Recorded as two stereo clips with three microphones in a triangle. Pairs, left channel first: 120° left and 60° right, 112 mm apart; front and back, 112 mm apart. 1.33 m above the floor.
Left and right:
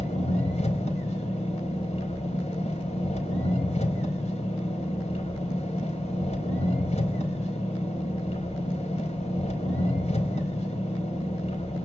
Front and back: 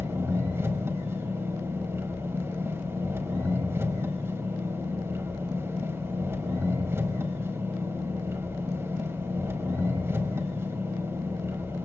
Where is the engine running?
115° left, 4.5 m.